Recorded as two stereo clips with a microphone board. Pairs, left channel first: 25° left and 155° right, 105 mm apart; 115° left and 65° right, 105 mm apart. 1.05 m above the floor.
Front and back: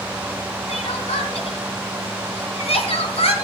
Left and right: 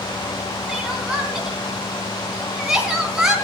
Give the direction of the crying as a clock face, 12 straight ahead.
11 o'clock.